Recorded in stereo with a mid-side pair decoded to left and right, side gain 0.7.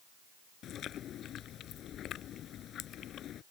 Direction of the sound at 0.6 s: 45° left.